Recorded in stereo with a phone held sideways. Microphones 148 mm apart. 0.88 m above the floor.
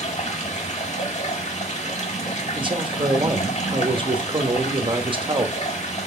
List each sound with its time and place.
0.0 s running water: 50° left (ahead or behind), 1.8 m
2.5 s a man speaking: 35° right (ahead or behind), 1.0 m